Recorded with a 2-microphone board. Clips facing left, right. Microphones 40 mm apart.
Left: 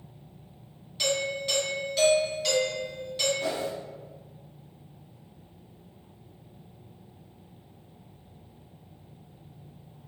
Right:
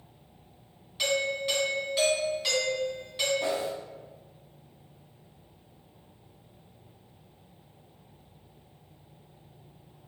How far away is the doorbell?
About 1.3 m.